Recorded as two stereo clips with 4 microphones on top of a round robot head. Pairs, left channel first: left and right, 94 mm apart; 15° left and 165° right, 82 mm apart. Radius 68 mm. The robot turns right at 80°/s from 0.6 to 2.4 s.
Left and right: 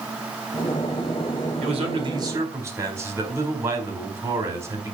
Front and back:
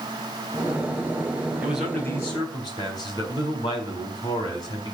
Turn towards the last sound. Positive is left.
turn(degrees=-30)